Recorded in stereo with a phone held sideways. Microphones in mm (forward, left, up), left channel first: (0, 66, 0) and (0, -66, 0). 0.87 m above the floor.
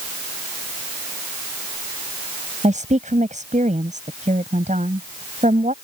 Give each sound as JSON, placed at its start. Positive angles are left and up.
{"t": 2.6, "sound": "a woman speaking", "side_deg": -70}